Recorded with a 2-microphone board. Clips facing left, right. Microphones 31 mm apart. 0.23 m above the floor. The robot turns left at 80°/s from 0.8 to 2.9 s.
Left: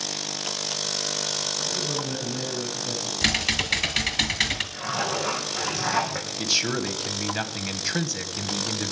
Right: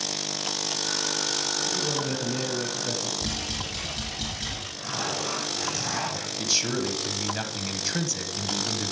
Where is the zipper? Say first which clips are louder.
Left 3 dB; 30° left (ahead or behind), 4.5 m.